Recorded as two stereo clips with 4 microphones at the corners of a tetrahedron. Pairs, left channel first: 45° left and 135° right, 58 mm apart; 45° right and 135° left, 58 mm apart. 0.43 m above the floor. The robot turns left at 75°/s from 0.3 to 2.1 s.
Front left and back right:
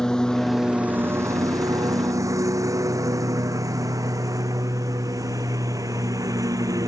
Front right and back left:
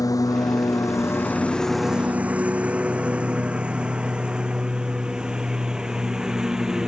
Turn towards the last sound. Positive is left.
turn(degrees=-145)